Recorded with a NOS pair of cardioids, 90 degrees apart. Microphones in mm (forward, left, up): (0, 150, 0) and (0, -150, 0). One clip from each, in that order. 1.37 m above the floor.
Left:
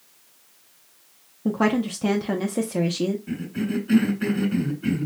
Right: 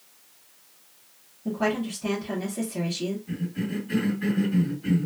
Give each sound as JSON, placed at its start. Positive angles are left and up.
{"t": 1.4, "sound": "a woman speaking", "azimuth_deg": 55, "distance_m": 0.7}
{"t": 3.3, "sound": "a cough", "azimuth_deg": 65, "distance_m": 1.6}